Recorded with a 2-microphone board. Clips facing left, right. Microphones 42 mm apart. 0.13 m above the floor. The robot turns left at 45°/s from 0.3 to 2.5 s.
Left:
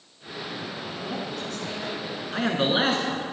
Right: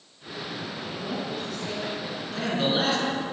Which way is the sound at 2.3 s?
35° left (ahead or behind).